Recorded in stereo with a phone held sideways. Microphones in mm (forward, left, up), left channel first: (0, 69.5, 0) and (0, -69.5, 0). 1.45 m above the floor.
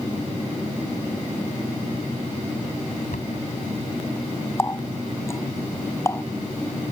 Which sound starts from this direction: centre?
A running tap, at 4.6 s.